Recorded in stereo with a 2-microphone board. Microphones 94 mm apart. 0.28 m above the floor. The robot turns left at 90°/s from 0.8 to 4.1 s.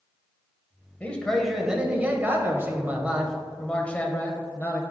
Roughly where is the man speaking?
Centre.